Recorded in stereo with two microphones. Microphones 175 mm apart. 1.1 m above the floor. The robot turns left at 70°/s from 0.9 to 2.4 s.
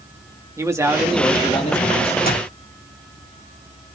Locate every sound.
0.6 s a man speaking: 165° right, 1.9 m; by 2.2 s 110° left, 1.9 m
2.3 s a clap: 60° left (ahead or behind), 7.5 m; by 2.5 s 70° left (ahead or behind), 7.5 m